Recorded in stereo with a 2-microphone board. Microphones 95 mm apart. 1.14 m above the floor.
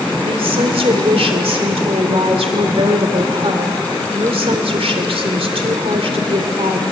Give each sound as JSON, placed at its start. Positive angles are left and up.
{"t": 0.2, "sound": "a woman speaking", "side_deg": -85, "distance_m": 3.5}